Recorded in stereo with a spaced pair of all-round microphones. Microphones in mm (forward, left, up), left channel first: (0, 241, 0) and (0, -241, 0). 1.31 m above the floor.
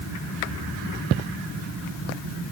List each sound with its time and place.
Only background noise.